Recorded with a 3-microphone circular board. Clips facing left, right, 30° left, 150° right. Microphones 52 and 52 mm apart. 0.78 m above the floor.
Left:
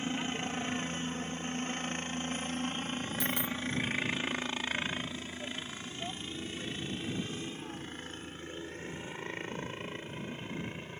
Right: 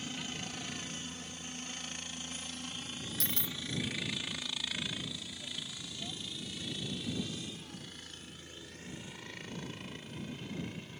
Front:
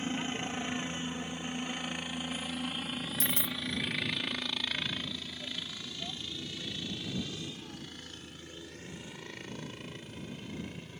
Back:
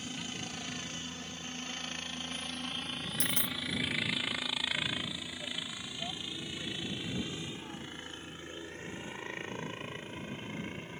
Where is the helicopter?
55° left; by 11.0 s 150° left.